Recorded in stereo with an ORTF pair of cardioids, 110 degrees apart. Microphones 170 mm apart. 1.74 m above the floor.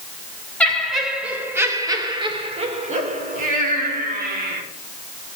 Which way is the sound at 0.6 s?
5° left.